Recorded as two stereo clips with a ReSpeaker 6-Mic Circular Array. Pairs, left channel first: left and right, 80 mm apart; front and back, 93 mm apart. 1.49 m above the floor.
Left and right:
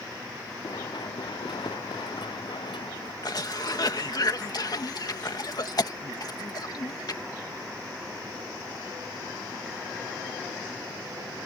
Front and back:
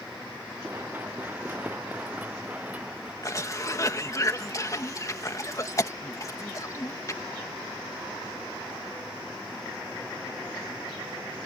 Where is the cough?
55° left.